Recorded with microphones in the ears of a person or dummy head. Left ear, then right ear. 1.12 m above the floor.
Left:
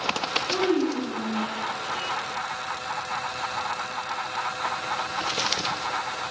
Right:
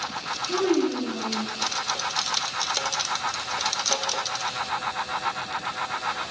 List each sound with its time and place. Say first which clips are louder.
0.5 s a child speaking: right 3 dB; 20° right (ahead or behind), 6.5 m; by 1.5 s 30° right (ahead or behind), 7 m